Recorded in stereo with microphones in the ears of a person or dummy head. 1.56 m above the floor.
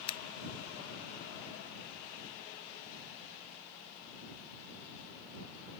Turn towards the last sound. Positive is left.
turn(degrees=30)  # may be behind; listen again after turning